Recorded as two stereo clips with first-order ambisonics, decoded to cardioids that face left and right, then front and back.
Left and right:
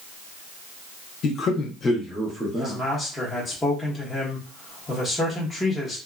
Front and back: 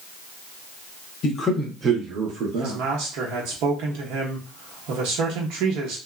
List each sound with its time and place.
1.2 s a man speaking: 45° left, 0.7 m; by 2.8 s 170° right, 1.1 m
2.6 s a man speaking: 165° left, 1.0 m